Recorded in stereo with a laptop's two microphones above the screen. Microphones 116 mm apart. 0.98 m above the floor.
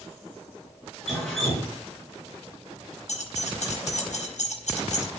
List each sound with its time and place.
1.1 s dripping: 5° left (ahead or behind), 5 m
3.1 s keys jangling: 85° left, 4 m